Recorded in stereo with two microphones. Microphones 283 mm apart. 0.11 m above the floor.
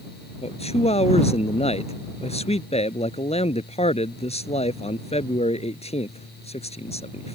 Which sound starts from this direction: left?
A man speaking, at 0.4 s.